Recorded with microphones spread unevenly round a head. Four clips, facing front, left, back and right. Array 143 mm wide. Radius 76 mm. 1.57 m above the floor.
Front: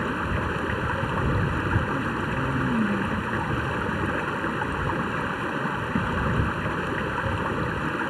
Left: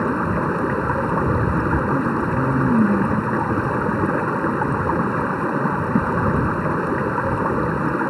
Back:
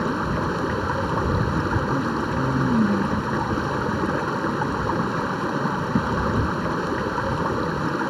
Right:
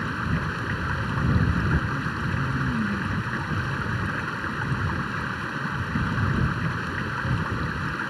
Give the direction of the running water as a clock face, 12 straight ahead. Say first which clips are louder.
Left 8 dB, back 4 dB; 8 o'clock.